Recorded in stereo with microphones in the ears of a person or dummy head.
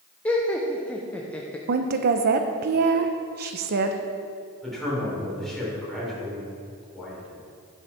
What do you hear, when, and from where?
0.2 s laughter: 5° left (ahead or behind), 0.6 m
1.7 s a woman speaking: 50° right (ahead or behind), 0.7 m
4.6 s a man speaking: centre (ahead or behind), 3.5 m